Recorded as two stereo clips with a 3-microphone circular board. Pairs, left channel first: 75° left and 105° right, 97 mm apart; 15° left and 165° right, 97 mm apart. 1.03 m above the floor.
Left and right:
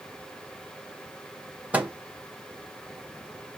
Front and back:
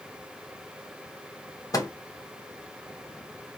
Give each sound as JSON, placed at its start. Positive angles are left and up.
{"t": 1.7, "sound": "a microwave", "azimuth_deg": -30, "distance_m": 0.8}